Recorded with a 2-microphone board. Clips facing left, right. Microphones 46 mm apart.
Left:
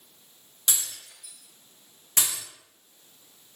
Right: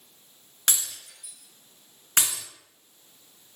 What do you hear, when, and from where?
0.7 s breaking glass: 55° right (ahead or behind), 1.3 m